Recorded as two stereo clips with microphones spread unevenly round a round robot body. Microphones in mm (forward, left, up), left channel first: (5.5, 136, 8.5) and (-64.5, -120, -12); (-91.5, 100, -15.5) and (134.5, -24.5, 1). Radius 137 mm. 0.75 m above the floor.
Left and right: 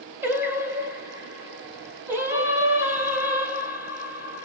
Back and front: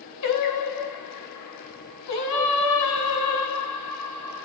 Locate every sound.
0.2 s singing: 175° left, 0.9 m